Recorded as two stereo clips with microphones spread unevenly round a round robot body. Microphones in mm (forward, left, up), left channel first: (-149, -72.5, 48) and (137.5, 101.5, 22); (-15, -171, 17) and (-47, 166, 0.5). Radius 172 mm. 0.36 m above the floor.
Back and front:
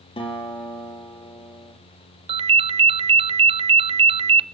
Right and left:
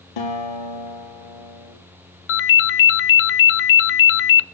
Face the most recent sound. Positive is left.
turn(degrees=-35)